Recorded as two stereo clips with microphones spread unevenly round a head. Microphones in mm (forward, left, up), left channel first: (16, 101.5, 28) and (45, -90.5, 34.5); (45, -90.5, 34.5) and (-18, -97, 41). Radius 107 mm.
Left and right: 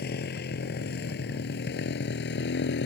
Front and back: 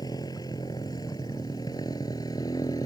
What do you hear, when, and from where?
0.0 s a motorcycle: 60° left; by 2.9 s 65° left